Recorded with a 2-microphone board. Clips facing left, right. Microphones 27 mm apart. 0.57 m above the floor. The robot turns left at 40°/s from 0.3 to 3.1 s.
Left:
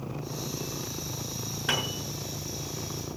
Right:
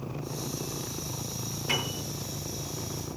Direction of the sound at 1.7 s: 80° left.